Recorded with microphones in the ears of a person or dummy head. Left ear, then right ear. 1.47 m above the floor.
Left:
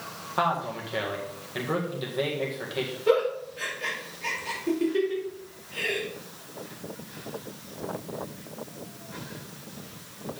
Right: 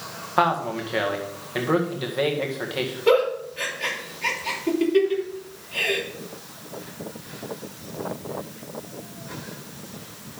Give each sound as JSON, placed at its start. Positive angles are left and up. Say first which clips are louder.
{"t": 0.4, "sound": "a man speaking", "louder": "right 5 dB", "side_deg": -15, "distance_m": 1.7}
{"t": 3.1, "sound": "a giggle", "louder": "right 4 dB", "side_deg": -30, "distance_m": 3.0}